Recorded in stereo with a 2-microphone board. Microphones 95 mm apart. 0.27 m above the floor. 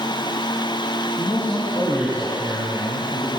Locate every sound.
1.2 s a man speaking: 40° left (ahead or behind), 7 m; by 3.3 s 55° left (ahead or behind), 6.5 m